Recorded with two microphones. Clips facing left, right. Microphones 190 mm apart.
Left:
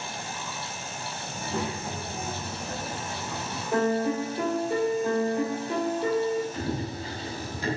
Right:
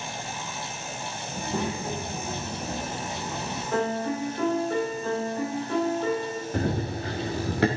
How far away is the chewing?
No chewing in this recording.